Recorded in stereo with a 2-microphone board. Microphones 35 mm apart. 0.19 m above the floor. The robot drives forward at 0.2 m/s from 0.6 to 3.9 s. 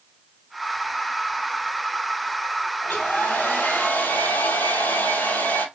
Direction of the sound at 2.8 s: 85° left.